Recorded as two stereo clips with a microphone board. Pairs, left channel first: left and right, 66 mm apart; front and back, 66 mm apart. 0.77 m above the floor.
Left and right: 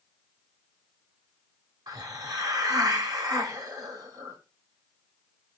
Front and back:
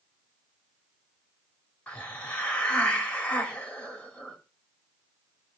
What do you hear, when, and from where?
1.9 s a hiss: 70° right, 2 m